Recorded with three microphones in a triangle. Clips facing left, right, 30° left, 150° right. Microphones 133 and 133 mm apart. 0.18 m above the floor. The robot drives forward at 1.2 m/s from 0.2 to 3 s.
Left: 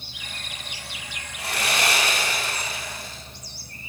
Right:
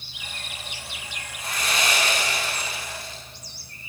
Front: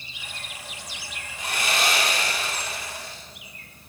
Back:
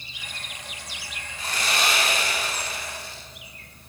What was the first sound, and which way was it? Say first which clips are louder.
Sawing: left 2 dB, front 1 dB; 110° left.